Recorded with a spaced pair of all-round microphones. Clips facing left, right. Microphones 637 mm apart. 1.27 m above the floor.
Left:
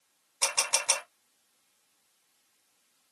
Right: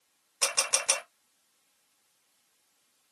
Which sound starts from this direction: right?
A camera shutter, at 0.4 s.